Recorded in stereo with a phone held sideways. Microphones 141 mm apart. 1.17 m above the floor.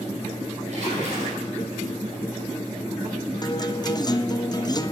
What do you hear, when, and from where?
0.7 s a splash: 55° right (ahead or behind), 7 m
3.4 s a guitar: 30° left (ahead or behind), 0.5 m